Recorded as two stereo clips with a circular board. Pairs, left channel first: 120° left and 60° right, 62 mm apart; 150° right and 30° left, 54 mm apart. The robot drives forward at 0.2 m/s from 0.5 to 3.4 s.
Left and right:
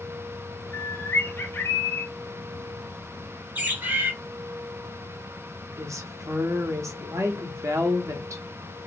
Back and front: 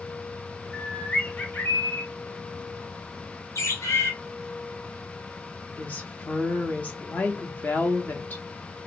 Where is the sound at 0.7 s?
155° left, 0.5 m; by 2.1 s 165° left, 0.7 m.